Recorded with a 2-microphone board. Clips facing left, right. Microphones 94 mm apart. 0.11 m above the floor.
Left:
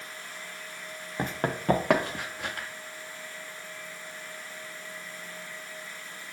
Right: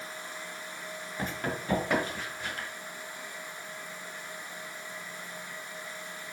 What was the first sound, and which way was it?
Running footsteps, 40° left (ahead or behind).